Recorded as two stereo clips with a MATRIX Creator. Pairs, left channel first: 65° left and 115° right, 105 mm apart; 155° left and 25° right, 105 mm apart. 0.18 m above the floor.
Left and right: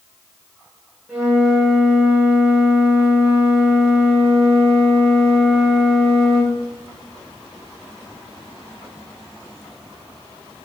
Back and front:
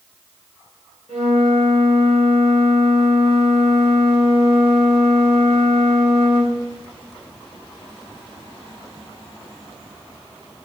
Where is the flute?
40° right, 4.5 m.